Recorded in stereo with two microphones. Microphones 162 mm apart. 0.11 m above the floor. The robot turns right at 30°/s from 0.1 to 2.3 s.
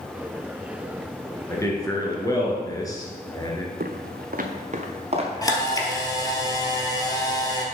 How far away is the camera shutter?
About 1.3 m.